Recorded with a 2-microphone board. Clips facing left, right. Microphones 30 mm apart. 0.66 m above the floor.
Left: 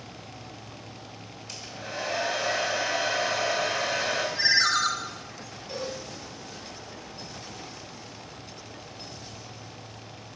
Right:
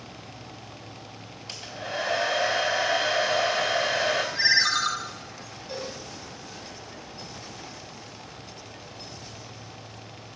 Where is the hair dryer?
65° right (ahead or behind), 2.5 m.